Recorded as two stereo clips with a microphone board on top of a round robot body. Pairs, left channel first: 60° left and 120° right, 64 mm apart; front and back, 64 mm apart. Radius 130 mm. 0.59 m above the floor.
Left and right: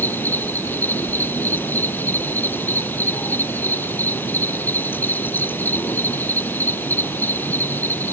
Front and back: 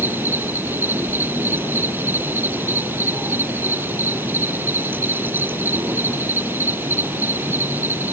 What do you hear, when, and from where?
0.0 s an insect: 120° left